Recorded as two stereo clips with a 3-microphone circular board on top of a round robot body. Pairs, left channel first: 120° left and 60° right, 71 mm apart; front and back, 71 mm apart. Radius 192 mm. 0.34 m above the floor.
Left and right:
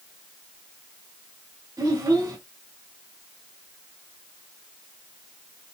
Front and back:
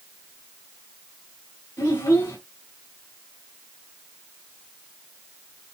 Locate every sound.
1.8 s a child speaking: 15° right, 2.5 m